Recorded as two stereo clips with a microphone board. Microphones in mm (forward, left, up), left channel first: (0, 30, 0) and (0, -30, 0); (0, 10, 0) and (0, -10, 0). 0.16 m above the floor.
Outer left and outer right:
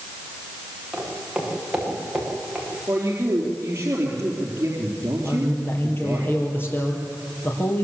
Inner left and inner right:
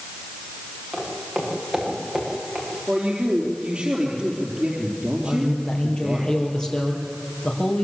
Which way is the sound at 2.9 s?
40° right (ahead or behind).